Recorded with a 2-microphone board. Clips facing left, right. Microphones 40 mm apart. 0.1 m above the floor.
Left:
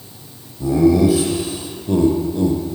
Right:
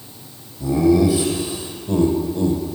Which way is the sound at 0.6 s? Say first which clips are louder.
Left 2 dB; 25° left (ahead or behind).